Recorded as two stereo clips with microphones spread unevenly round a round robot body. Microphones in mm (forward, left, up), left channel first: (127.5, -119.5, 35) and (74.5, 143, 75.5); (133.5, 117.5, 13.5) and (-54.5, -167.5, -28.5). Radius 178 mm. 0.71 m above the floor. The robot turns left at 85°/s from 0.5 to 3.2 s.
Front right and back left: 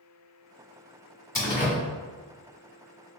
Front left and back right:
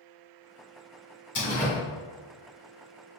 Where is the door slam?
Straight ahead, 1.8 m; by 1.8 s 35° right, 1.8 m.